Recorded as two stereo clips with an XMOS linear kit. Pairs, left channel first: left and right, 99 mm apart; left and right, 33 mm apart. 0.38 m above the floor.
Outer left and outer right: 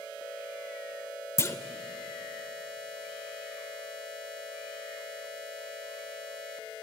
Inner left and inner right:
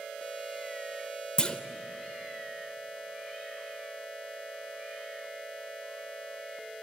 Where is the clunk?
30° left (ahead or behind), 0.8 m.